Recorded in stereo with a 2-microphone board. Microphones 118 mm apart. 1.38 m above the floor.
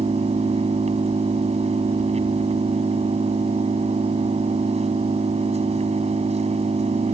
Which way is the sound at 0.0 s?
60° right (ahead or behind).